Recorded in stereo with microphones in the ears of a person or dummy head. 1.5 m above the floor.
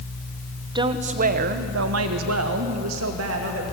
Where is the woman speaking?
25° right (ahead or behind), 1.3 m; by 3.6 s 75° right (ahead or behind), 2.5 m.